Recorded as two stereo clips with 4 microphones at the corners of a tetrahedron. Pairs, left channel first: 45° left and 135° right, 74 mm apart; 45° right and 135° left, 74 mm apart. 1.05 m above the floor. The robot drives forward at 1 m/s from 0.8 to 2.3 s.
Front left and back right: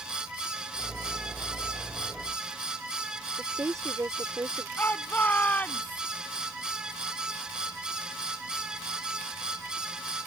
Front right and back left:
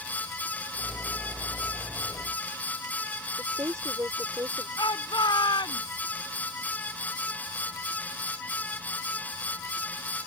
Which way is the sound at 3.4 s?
Straight behind.